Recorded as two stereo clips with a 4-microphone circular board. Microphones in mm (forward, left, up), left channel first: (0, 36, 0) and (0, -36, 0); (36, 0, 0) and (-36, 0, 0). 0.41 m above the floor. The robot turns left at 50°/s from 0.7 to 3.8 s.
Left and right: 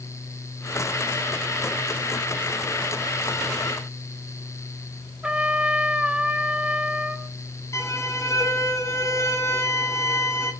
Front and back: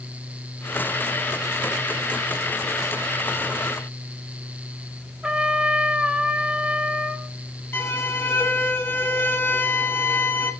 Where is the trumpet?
135° right, 0.7 m.